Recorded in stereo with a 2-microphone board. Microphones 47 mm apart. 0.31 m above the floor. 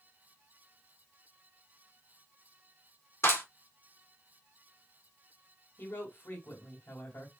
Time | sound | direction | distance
3.2 | a clap | 60° left (ahead or behind) | 3 m
5.8 | a woman speaking | 50° left (ahead or behind) | 2 m